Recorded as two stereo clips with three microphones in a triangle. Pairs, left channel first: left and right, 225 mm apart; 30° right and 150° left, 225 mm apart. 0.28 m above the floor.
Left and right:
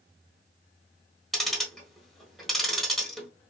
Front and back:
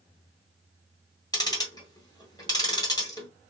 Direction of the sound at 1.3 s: 5° left.